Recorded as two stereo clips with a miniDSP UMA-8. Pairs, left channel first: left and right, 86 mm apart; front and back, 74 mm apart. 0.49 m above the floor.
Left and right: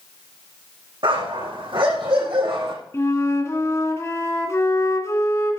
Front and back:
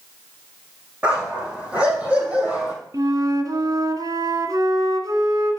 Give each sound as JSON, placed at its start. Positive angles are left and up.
{"t": 1.0, "sound": "a dog barking", "azimuth_deg": -105, "distance_m": 6.0}
{"t": 2.9, "sound": "a flute", "azimuth_deg": 145, "distance_m": 1.8}